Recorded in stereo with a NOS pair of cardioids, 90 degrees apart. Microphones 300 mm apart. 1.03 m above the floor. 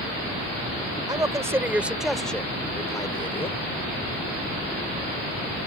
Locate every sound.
1.1 s a man speaking: 15° right; by 3.6 s 20° left